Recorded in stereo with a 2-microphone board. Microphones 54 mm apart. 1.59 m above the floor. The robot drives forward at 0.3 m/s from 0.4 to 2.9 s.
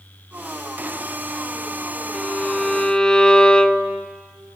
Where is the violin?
15° left (ahead or behind), 1.0 m; by 4.1 s 20° left (ahead or behind), 0.7 m.